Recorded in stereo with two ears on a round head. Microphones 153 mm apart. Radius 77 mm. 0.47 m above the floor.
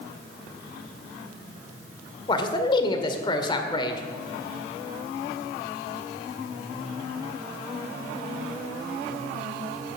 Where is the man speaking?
30° left (ahead or behind), 1.7 m.